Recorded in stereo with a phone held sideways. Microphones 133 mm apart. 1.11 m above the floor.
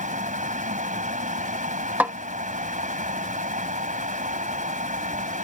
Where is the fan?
75° right (ahead or behind).